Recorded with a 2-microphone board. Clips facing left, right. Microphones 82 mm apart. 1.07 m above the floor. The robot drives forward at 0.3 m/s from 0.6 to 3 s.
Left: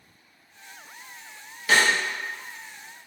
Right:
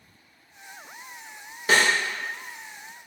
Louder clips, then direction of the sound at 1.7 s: Even; 30° right (ahead or behind).